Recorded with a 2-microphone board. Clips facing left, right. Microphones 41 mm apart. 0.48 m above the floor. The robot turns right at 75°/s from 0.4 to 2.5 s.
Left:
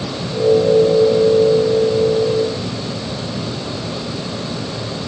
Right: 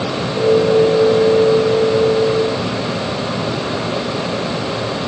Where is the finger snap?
No finger snap in this recording.